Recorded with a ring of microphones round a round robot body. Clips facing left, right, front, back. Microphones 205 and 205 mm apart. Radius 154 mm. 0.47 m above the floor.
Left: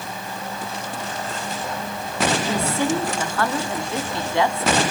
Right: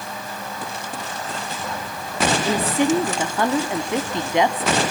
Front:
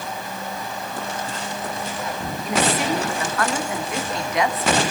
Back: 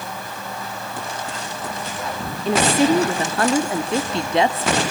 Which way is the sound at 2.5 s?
150° right.